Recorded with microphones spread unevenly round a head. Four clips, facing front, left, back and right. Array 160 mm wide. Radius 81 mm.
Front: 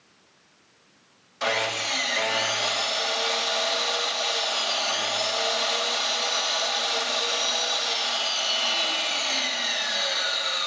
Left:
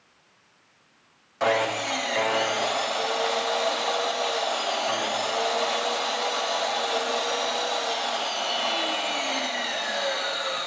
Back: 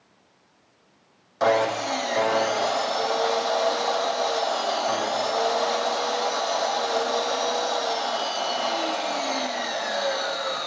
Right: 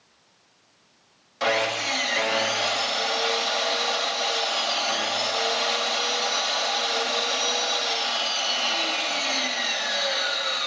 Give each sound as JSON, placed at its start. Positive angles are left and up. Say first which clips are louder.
{"t": 1.4, "sound": "sawing", "louder": "left 1 dB, back 7 dB", "azimuth_deg": 165, "distance_m": 0.7}